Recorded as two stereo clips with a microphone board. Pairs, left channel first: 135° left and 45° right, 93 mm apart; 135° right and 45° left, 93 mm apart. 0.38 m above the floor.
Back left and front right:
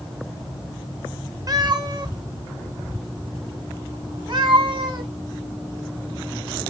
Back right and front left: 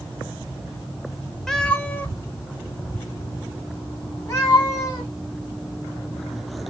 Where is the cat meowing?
55° right, 0.7 m; by 5.1 s 85° right, 2.5 m.